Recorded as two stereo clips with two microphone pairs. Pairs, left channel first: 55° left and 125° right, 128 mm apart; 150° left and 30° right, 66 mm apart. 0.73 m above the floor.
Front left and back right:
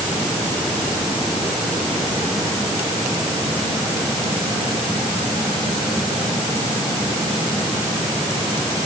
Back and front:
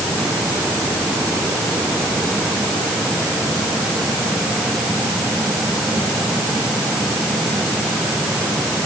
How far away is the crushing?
I don't hear crushing.